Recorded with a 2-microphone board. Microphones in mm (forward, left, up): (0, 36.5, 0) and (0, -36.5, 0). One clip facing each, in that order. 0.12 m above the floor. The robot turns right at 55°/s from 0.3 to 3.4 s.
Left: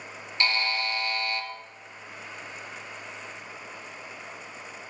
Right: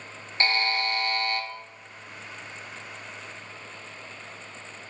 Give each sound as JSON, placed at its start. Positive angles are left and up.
{"t": 0.4, "sound": "a buzzer", "azimuth_deg": -130, "distance_m": 0.7}